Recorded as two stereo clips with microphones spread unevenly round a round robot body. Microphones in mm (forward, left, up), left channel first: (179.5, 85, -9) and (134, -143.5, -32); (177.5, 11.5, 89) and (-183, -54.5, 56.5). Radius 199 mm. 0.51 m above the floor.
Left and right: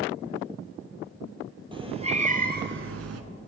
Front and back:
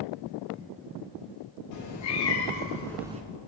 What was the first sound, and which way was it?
A cat meowing, 30° right.